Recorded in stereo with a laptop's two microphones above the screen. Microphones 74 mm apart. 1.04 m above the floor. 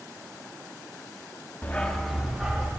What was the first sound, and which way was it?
A dog barking, 25° left (ahead or behind).